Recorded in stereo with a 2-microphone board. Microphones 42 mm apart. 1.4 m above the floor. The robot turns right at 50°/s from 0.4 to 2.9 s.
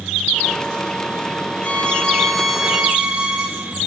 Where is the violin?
140° left, 2.5 m; by 3.8 s 160° right, 2.5 m.